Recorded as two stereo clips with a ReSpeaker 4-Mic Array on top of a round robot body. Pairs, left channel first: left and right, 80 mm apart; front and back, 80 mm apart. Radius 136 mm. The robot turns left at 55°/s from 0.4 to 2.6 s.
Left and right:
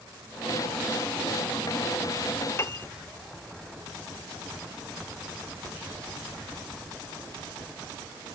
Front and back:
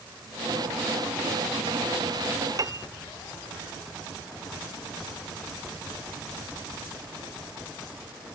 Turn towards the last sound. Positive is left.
turn(degrees=140)